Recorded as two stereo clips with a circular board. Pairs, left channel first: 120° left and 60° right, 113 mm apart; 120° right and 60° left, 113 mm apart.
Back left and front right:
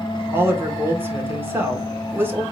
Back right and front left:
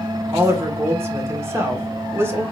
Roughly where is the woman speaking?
Ahead.